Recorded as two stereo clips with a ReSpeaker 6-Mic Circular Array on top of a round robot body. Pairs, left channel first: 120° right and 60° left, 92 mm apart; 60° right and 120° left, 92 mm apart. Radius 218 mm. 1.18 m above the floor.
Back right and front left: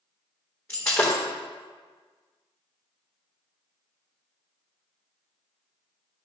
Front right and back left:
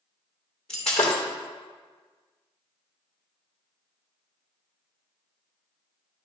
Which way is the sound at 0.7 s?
60° right.